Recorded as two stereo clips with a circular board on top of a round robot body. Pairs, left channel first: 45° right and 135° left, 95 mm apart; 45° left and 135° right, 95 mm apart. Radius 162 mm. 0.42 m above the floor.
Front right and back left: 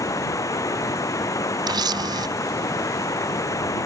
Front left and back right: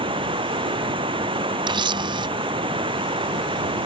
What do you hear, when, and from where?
0.0 s running water: 105° right
1.7 s a camera shutter: 175° right